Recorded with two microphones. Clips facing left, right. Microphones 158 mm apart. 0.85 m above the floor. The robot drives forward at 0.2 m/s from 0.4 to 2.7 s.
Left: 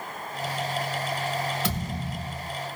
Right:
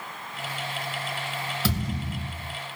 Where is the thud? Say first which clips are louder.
Right 1 dB; 30° right (ahead or behind), 3.5 m.